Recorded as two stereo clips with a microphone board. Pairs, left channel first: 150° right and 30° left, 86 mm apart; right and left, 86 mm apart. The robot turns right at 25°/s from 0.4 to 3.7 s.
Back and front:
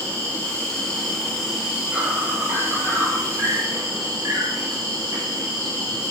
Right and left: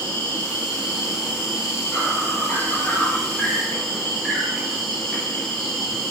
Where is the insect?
80° right, 1.2 m; by 6.1 s straight ahead, 1.2 m.